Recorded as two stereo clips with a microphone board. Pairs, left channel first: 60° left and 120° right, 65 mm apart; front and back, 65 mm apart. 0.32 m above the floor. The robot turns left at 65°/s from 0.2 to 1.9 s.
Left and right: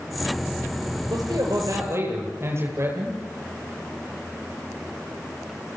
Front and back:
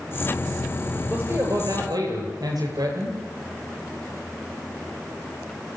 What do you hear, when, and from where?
1.1 s a man speaking: 115° right, 9.5 m; by 3.2 s 165° right, 9.5 m